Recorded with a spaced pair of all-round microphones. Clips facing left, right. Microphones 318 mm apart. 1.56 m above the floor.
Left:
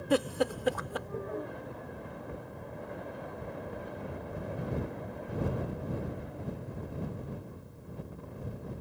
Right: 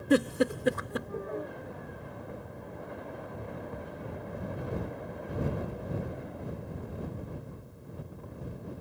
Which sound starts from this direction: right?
A giggle, at 0.1 s.